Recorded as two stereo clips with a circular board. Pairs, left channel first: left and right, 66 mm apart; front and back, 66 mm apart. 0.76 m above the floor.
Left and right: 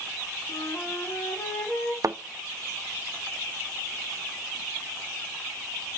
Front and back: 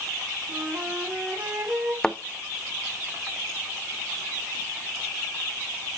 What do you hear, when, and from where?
0.5 s a flute: 125° left, 3 m
2.0 s a thud: 80° right, 0.6 m